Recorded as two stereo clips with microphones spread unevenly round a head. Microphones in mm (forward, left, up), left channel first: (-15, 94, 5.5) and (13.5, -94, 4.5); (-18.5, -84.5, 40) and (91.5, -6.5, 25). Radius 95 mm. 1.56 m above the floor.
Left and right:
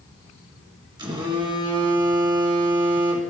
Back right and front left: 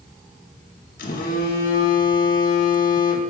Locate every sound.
1.0 s a phone buzzing: 150° right, 1.3 m